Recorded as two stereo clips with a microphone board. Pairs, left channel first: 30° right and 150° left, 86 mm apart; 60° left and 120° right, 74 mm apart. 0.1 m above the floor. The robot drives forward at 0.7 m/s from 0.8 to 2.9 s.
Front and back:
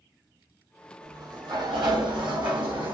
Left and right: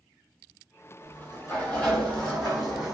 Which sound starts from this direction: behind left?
A sliding door, at 1.0 s.